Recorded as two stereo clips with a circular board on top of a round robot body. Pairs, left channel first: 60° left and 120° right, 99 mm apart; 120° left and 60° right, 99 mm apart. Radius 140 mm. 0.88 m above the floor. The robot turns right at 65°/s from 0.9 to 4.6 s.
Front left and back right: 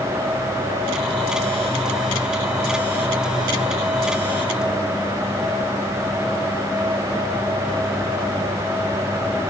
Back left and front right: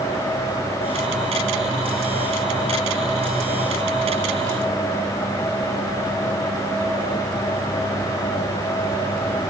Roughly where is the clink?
No clink in this recording.